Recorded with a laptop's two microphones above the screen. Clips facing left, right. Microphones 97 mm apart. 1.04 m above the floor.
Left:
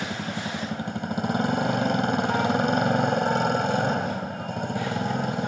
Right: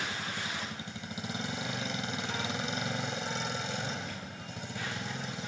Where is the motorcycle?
60° left (ahead or behind).